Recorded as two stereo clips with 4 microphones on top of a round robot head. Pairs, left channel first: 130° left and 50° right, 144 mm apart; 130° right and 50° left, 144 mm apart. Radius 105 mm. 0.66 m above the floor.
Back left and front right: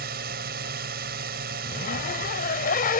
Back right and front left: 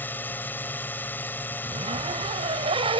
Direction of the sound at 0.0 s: 55° right.